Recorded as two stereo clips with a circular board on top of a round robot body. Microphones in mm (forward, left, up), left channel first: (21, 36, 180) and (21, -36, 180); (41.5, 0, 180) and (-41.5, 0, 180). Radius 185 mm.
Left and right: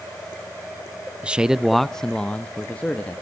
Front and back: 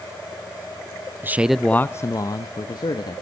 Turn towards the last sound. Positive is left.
turn(degrees=20)